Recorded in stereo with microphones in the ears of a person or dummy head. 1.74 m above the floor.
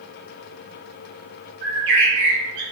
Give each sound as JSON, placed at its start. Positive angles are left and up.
{"t": 1.6, "sound": "a bird", "side_deg": -60, "distance_m": 1.3}